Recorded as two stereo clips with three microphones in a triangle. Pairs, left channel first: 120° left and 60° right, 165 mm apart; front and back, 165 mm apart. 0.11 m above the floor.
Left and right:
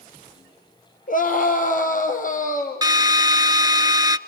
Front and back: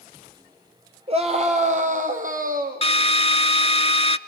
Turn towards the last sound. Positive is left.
turn(degrees=-10)